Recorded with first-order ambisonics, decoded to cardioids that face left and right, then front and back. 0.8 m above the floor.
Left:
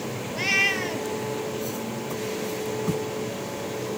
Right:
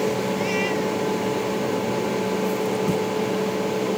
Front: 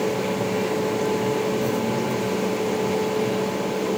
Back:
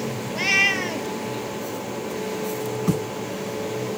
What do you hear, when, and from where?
0.3 s a cat meowing: 155° left